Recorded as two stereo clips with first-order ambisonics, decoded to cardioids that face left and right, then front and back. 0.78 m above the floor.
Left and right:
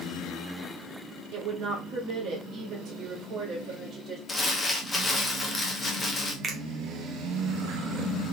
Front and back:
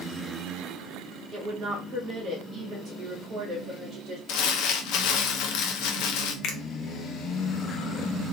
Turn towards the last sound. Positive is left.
turn(degrees=-30)